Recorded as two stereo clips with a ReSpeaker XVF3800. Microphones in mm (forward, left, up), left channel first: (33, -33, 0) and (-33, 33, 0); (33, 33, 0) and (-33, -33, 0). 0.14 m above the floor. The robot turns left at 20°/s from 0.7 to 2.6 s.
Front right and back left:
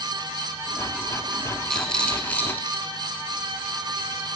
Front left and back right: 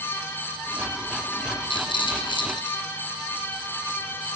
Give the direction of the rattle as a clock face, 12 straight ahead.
11 o'clock.